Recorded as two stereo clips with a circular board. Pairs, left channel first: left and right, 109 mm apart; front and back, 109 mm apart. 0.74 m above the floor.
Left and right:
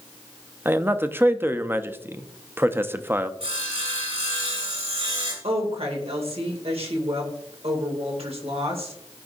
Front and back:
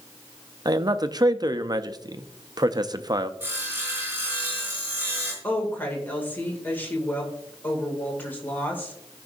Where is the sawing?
110° right, 3 m.